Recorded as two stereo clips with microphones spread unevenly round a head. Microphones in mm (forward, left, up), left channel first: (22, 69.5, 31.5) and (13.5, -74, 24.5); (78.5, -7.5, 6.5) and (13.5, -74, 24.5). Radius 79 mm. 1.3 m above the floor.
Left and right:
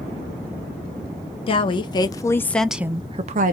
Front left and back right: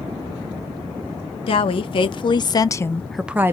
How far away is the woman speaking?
About 1.2 m.